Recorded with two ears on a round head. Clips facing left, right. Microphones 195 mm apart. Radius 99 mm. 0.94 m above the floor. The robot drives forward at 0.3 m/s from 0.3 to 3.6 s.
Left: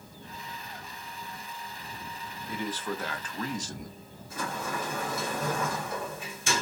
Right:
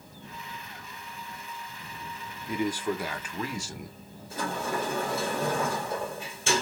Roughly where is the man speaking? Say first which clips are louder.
Right 5 dB; centre.